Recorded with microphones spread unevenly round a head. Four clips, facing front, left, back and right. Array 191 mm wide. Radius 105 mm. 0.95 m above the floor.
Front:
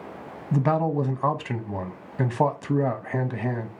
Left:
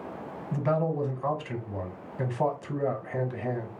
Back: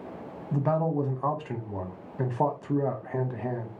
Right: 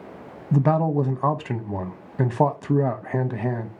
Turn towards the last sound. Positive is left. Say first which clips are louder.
# right 7 dB, front 3 dB
turn(degrees=-40)